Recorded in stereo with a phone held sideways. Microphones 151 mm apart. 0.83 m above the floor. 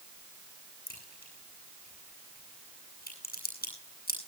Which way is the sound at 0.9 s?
75° left (ahead or behind).